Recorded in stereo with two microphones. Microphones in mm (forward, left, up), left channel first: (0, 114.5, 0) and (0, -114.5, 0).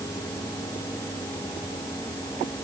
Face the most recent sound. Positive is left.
No sound to turn to.